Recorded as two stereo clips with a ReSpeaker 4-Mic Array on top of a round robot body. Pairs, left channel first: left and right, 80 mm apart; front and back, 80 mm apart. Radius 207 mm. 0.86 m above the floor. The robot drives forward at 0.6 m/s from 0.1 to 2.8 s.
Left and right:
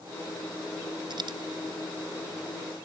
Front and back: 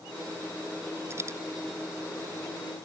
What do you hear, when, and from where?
1.1 s a dropped coin: 120° right; by 1.4 s 125° right